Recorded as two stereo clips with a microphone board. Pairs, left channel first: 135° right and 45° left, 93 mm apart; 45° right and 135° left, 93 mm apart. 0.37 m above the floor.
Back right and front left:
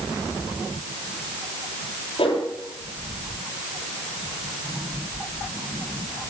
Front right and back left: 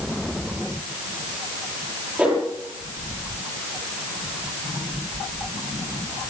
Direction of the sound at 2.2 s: 150° right.